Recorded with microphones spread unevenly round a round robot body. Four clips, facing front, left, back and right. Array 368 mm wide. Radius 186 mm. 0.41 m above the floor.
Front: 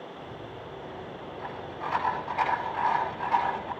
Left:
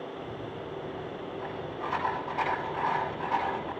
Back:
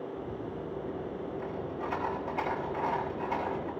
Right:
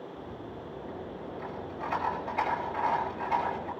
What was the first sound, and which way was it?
A rattle, 175° right.